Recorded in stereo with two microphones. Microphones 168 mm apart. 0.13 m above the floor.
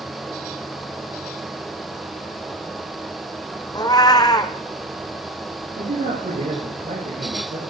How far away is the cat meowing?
About 0.9 m.